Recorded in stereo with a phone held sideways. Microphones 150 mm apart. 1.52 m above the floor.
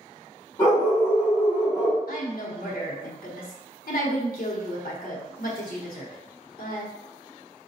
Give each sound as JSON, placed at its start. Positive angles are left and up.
{"t": 0.6, "sound": "a dog barking", "side_deg": 25, "distance_m": 1.6}
{"t": 2.1, "sound": "a woman speaking", "side_deg": 75, "distance_m": 0.8}